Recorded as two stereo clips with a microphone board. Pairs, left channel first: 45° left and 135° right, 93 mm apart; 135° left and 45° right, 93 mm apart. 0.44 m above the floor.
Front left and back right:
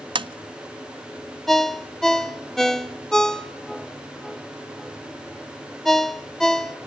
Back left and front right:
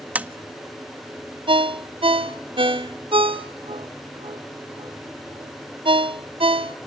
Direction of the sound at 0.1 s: 120° right.